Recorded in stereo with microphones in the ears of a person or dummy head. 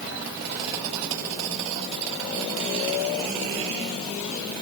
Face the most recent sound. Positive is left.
No sound to turn to.